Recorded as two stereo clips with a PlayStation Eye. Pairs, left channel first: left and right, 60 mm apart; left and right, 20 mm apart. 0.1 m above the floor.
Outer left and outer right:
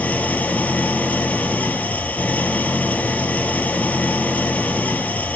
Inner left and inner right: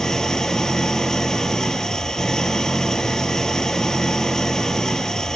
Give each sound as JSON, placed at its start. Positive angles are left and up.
{"t": 0.0, "sound": "an engine running", "side_deg": 30, "distance_m": 0.9}